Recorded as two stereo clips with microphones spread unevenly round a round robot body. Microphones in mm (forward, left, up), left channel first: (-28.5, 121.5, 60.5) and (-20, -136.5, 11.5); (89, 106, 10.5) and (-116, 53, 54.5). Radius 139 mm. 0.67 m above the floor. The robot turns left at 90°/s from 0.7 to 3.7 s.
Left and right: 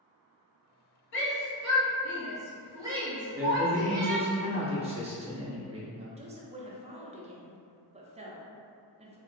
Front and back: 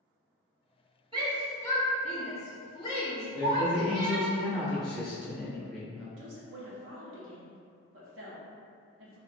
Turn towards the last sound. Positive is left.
turn(degrees=-140)